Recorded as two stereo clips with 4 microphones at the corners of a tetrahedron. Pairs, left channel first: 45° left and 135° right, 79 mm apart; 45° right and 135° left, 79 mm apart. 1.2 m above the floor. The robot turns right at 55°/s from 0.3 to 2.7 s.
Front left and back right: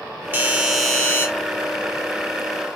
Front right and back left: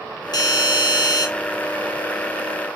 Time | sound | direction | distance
0.3 | a doorbell | 75° right | 2.5 m